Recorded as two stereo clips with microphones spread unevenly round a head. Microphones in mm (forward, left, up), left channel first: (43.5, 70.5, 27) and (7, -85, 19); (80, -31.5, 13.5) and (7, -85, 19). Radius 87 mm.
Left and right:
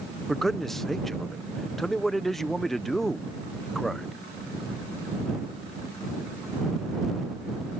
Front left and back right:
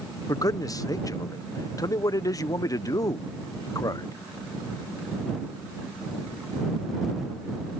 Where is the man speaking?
10° right.